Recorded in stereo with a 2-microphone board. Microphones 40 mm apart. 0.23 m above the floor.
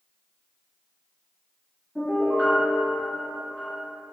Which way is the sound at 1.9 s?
20° left (ahead or behind).